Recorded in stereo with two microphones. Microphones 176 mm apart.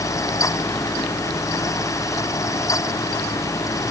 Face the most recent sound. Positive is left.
No sound to turn to.